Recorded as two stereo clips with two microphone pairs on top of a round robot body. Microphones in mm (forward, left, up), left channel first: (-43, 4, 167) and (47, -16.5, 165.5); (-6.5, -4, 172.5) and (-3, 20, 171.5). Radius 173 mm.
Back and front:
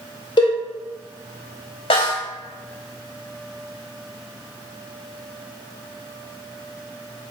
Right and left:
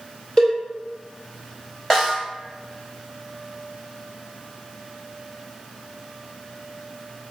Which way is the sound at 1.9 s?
170° right.